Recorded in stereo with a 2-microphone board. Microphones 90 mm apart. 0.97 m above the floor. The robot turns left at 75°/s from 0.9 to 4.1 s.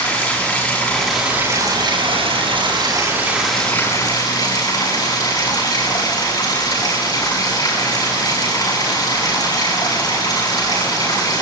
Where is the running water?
10° left, 8 m; by 11.4 s 130° left, 8 m.